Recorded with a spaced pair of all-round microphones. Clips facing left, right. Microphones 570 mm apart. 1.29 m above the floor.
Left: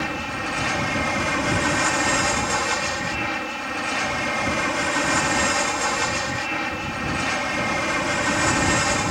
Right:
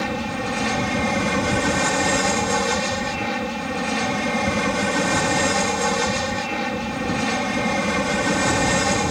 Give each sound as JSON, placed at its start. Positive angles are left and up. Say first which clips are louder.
{"t": 0.0, "sound": "an aircraft", "louder": "right 4 dB", "side_deg": -60}